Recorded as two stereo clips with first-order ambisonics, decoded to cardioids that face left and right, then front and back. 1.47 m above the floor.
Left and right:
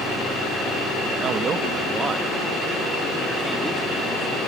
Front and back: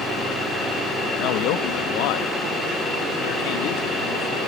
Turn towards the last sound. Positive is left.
turn(degrees=0)